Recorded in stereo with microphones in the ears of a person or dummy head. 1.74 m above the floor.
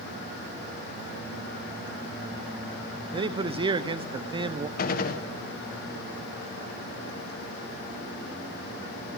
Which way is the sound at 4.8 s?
50° left (ahead or behind).